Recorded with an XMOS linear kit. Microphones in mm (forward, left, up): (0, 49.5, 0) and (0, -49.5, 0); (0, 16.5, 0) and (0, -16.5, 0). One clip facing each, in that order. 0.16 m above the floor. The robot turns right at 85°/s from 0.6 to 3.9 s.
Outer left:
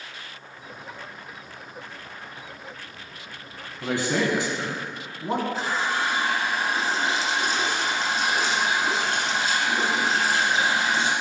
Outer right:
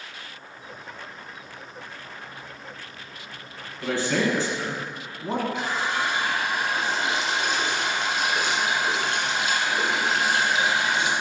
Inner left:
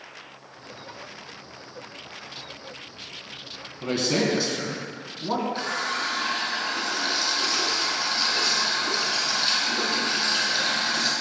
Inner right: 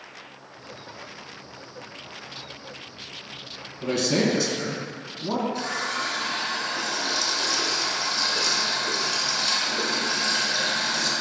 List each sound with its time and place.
3.8 s a man speaking: 15° left (ahead or behind), 1.0 m
5.5 s a running tap: 35° left (ahead or behind), 1.2 m